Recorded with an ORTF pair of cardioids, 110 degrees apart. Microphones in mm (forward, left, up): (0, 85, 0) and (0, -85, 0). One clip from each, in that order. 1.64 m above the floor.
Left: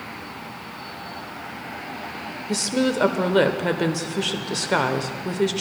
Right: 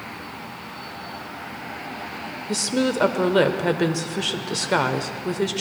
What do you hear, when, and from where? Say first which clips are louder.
2.5 s a woman speaking: even; straight ahead, 0.9 m